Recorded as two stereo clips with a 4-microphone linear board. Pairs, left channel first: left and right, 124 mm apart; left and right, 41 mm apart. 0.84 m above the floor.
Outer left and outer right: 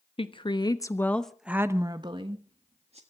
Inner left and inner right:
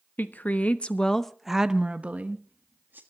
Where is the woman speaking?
50° left (ahead or behind), 1.3 m; by 3.0 s 60° right (ahead or behind), 1.7 m.